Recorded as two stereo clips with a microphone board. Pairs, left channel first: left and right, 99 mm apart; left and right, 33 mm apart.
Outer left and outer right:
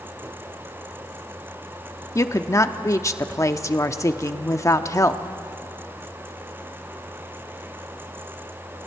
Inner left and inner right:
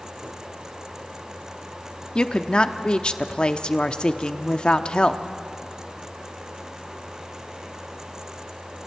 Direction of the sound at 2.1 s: 30° left (ahead or behind).